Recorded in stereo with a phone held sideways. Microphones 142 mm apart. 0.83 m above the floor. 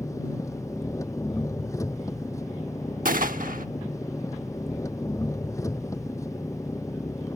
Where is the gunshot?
80° right.